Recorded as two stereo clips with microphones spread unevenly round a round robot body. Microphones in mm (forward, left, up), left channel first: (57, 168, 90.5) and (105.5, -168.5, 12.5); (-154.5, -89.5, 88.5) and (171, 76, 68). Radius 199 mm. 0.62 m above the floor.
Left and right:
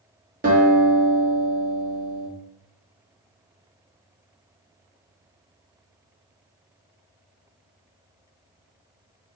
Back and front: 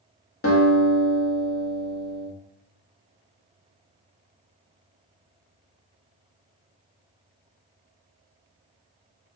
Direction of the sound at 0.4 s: 115° right.